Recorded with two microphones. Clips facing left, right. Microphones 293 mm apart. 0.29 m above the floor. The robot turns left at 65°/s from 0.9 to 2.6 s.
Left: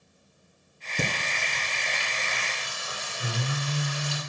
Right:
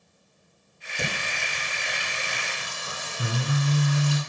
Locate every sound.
1.0 s singing: 45° left, 1.8 m; by 4.2 s 60° right, 1.8 m